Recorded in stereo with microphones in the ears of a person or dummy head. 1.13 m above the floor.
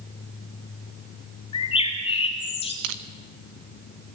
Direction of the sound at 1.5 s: 30° left (ahead or behind).